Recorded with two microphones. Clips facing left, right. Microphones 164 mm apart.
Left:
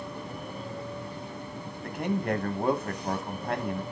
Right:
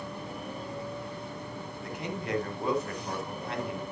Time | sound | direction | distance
1.8 | a man speaking | 55° left (ahead or behind) | 2.5 m